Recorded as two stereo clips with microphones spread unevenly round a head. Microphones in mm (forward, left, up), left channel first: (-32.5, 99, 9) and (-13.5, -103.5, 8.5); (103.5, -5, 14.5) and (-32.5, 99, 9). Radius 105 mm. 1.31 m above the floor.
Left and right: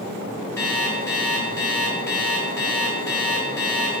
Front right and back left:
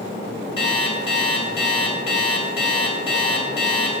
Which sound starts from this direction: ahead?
An alarm clock, at 0.6 s.